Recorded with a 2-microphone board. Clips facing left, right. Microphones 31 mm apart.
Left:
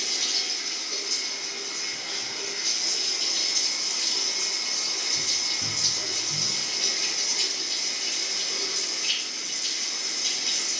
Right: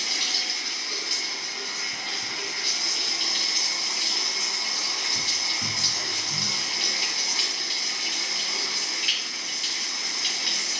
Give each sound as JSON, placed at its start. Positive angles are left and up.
{"t": 0.0, "sound": "running water", "side_deg": -40, "distance_m": 2.5}